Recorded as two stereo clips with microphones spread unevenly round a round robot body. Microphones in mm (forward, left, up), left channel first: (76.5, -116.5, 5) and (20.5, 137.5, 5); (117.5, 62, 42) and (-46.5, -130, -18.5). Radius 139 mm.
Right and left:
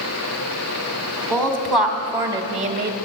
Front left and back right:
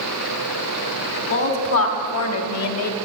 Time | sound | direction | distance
1.3 | a woman speaking | 5° left | 2.5 m